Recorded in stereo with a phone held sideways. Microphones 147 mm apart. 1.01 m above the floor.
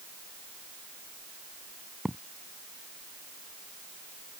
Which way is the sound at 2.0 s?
Centre (ahead or behind).